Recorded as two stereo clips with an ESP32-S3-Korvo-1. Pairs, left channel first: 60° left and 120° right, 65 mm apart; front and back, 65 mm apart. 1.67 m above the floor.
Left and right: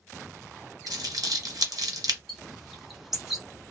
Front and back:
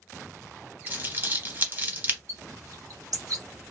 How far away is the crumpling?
About 0.9 m.